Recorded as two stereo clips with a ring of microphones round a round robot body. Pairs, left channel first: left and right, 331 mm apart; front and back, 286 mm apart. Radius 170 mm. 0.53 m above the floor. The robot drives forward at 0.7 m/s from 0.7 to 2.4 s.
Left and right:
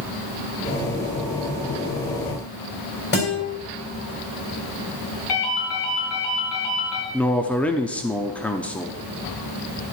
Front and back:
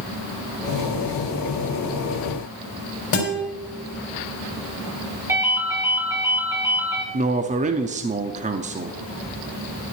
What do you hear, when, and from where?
3.1 s a guitar: 30° left, 3.5 m
5.3 s a ringtone: 100° left, 5 m
7.1 s a man speaking: 170° left, 0.7 m